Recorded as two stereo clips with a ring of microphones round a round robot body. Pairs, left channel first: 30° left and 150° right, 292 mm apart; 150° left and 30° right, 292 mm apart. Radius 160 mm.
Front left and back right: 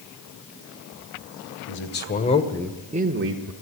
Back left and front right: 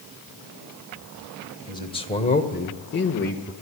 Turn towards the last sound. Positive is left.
turn(degrees=-155)